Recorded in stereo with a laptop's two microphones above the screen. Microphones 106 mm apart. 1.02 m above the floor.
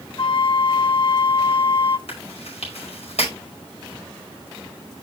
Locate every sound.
0.2 s a flute: 55° left (ahead or behind), 0.5 m
2.1 s chewing: 80° left, 5 m